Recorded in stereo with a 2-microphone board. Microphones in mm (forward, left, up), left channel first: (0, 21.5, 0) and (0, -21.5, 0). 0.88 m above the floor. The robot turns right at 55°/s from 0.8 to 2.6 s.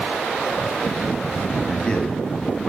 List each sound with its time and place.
1.7 s a man speaking: 20° left, 1.8 m; by 2.7 s 70° left, 1.8 m